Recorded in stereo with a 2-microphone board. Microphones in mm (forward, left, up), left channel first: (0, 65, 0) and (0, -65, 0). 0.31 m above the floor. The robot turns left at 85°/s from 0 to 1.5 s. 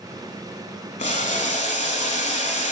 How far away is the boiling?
About 0.9 m.